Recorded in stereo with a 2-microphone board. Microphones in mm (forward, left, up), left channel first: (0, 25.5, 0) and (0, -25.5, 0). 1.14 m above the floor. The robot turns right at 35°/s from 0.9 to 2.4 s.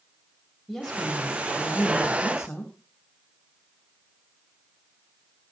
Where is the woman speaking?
Straight ahead, 5.5 m; by 2.7 s 55° left, 5.5 m.